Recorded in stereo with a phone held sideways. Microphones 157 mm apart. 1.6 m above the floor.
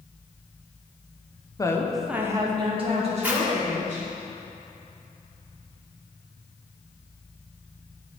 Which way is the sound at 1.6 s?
25° left (ahead or behind).